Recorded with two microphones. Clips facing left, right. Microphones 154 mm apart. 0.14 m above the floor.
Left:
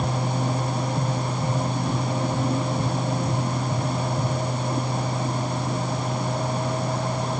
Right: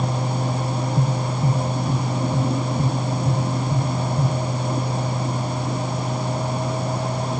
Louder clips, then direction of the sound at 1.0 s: Right 3 dB; 30° right (ahead or behind).